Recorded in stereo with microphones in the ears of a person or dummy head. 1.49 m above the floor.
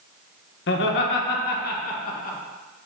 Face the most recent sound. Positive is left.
turn(degrees=40)  # may be behind; listen again after turning